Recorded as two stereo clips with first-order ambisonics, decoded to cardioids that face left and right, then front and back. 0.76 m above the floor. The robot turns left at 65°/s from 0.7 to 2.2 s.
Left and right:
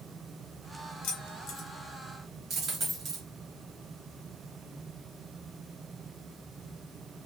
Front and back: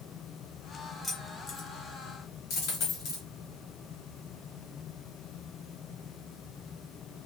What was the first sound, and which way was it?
Keys jangling, 85° left.